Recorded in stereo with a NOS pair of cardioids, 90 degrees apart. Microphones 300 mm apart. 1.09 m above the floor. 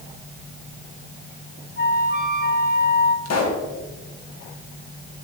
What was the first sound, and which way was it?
A flute, 35° left.